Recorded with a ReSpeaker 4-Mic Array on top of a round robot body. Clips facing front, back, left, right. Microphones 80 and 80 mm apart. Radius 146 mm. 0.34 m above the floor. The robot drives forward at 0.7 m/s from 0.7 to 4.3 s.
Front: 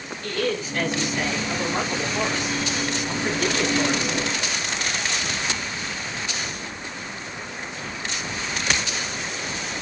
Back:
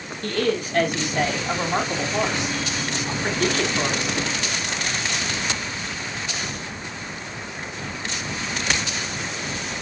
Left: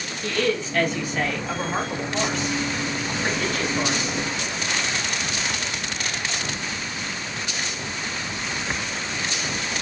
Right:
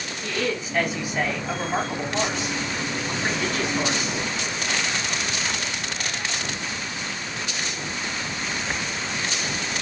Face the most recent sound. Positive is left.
turn(degrees=-175)